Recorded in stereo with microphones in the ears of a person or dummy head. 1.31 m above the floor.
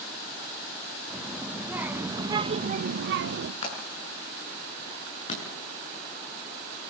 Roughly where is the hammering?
Left.